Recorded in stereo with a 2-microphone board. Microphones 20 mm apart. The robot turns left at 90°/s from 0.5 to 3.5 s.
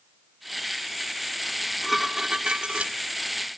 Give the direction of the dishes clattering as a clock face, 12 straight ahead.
11 o'clock.